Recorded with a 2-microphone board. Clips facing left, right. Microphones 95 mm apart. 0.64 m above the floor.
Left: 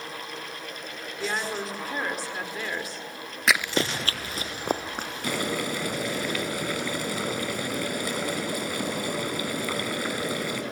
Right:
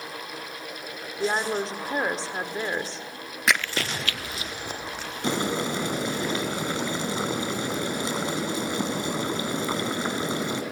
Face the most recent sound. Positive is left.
turn(degrees=-25)  # may be behind; listen again after turning